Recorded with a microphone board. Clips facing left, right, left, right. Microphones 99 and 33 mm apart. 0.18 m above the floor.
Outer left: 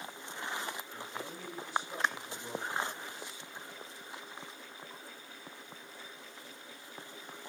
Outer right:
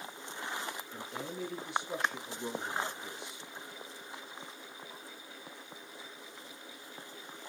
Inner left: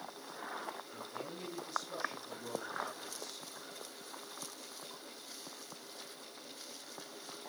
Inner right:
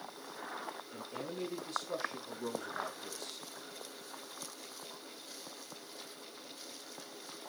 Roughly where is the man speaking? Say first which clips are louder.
Outer right 2 dB, inner right 3 dB; right.